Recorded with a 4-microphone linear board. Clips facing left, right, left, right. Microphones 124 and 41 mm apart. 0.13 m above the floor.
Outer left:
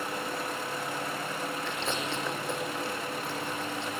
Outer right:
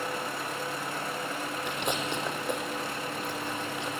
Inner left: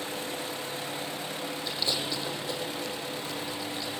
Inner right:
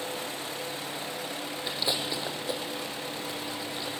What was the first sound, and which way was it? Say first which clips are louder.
Chewing: outer right 1 dB, inner right 1 dB; 15° right (ahead or behind).